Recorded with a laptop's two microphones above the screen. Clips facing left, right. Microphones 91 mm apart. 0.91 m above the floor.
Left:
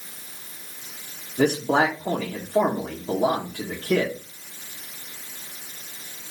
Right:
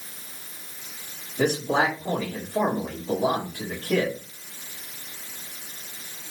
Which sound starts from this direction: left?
A man speaking, at 1.4 s.